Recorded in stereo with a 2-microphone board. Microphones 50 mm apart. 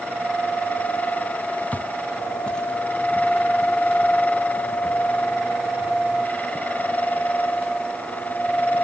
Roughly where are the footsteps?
Left.